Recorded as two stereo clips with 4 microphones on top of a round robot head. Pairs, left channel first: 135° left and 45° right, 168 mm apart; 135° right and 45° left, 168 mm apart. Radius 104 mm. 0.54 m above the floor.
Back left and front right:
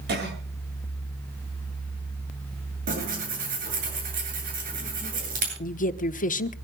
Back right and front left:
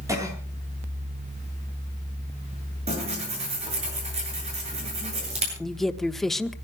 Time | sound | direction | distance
0.1 | a cough | 25° right | 8.5 m
2.9 | tearing paper | 5° right | 9 m
5.6 | a woman speaking | 140° left | 1.2 m